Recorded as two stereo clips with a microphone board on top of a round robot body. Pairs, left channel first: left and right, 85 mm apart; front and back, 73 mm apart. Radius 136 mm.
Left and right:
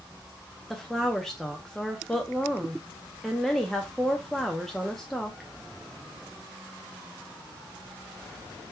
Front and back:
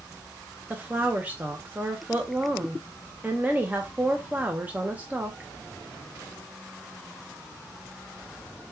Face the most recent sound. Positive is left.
turn(degrees=170)